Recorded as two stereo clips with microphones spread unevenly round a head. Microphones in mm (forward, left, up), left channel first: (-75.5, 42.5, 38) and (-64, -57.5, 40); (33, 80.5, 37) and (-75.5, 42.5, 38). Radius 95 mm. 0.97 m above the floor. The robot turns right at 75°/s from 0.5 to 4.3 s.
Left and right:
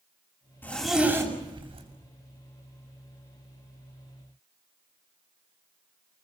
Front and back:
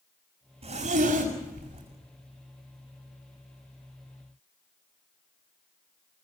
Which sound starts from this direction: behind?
A zipper, at 0.6 s.